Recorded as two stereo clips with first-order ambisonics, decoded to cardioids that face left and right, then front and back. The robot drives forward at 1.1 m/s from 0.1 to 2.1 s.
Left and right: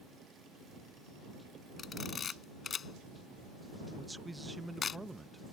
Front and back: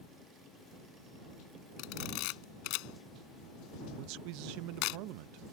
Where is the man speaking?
170° right.